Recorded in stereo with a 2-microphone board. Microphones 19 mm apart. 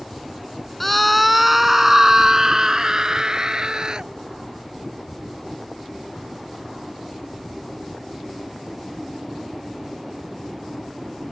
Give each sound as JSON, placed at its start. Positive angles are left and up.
{"t": 0.8, "sound": "a scream", "side_deg": 10}